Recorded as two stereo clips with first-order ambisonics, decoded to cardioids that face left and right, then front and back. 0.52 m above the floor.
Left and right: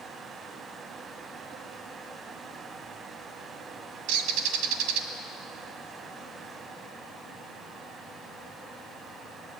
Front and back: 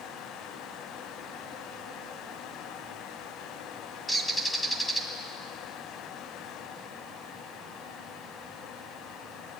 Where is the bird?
90° right, 2 m.